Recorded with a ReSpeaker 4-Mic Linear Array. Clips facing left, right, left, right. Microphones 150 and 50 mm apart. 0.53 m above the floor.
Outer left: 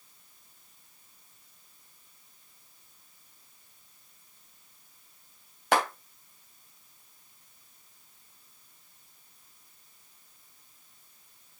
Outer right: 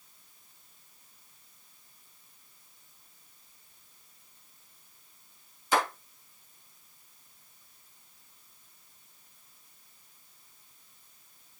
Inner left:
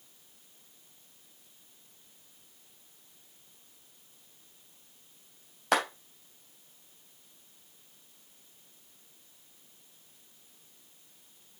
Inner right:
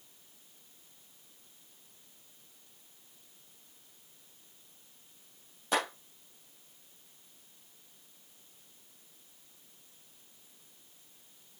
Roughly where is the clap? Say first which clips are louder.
Outer left 2 dB, inner left 4 dB; left.